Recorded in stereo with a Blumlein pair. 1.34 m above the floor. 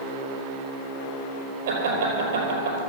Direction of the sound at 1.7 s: 60° right.